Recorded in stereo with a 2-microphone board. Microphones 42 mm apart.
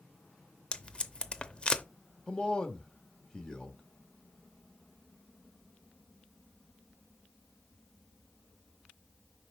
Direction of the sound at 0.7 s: 25° left (ahead or behind).